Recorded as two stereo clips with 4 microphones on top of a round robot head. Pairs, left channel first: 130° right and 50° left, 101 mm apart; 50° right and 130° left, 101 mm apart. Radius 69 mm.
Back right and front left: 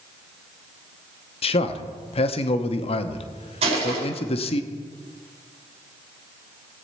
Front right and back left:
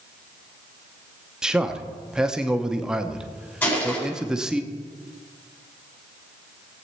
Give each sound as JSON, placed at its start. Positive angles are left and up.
{"t": 1.4, "sound": "a man speaking", "azimuth_deg": -150, "distance_m": 0.9}
{"t": 3.6, "sound": "crushing", "azimuth_deg": 20, "distance_m": 4.5}